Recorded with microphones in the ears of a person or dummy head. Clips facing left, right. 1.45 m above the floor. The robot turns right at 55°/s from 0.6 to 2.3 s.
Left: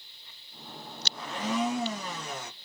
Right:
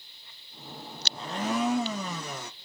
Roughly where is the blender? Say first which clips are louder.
Right 1 dB; behind.